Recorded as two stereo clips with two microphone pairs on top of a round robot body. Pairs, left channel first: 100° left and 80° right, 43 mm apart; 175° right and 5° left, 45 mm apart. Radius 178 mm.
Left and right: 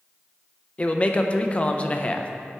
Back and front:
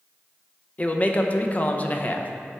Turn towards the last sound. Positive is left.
turn(degrees=135)